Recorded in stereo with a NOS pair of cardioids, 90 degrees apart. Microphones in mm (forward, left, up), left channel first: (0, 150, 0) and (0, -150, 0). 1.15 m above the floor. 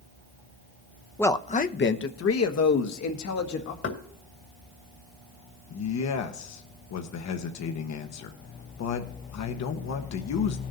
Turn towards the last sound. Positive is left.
turn(degrees=65)